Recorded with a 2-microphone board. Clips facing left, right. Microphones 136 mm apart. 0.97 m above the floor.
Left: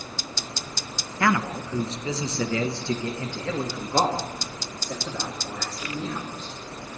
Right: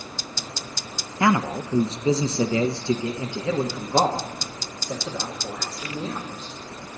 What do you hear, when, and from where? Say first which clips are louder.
1.2 s a man speaking: right 3 dB; 15° right (ahead or behind), 0.6 m; by 6.5 s 10° right (ahead or behind), 3 m